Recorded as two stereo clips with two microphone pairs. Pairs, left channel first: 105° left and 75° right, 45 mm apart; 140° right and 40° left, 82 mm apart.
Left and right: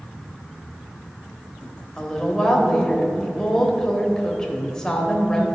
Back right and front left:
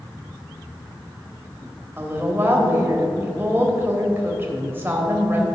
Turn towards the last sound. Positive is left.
turn(degrees=50)